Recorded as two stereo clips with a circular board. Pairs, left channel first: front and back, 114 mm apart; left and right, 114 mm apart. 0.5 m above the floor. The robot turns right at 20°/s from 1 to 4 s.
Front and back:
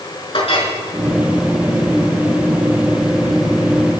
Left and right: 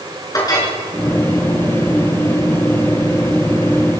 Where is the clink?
35° left, 5.5 m.